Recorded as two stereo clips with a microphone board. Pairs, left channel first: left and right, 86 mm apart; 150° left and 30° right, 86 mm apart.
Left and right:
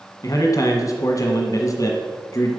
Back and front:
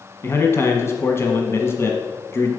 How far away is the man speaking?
About 1.3 m.